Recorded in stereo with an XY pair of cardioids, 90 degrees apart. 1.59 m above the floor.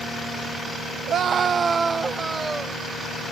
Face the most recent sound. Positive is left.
turn(degrees=-20)